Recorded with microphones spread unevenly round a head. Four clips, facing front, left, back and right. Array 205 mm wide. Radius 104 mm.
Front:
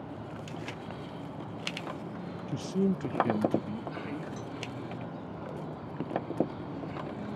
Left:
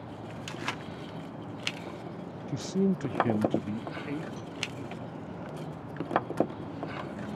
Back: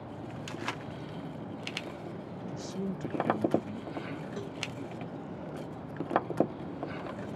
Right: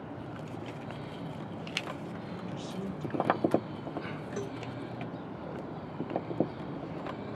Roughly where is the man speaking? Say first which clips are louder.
Left 13 dB, front 8 dB; ahead left.